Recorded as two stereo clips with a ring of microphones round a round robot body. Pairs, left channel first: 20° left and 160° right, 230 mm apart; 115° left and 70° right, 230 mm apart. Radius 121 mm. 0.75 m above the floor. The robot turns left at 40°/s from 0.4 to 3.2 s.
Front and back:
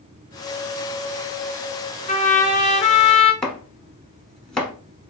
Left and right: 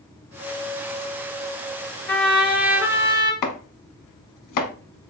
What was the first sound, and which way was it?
A trumpet, 30° left.